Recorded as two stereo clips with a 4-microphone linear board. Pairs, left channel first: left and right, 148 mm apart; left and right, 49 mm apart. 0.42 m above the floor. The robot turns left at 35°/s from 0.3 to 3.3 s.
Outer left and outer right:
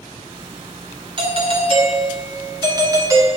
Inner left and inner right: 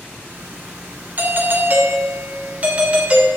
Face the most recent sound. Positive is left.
turn(degrees=-150)